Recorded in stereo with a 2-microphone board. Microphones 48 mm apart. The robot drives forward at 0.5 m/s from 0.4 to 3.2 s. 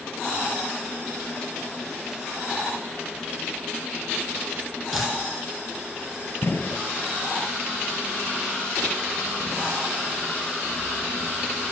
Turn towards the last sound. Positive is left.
turn(degrees=50)  # may be behind; listen again after turning